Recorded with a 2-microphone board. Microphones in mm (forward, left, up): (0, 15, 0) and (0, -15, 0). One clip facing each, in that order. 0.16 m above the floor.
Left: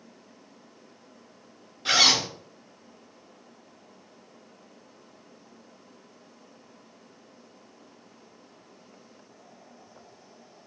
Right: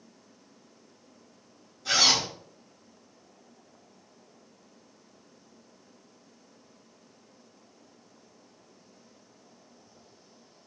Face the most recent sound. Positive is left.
turn(degrees=55)  # may be behind; listen again after turning